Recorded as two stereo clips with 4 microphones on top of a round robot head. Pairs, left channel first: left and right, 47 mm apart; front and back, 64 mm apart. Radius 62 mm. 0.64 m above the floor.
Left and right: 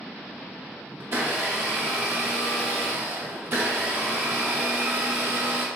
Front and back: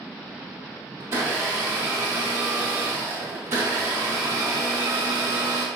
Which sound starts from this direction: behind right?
A blender, at 1.0 s.